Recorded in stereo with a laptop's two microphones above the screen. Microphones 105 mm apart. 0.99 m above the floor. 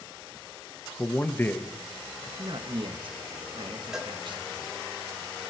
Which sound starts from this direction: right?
A man speaking, at 2.4 s.